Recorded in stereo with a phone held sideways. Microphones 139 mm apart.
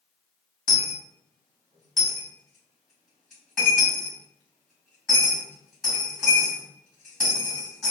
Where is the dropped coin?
Centre (ahead or behind), 1.6 m.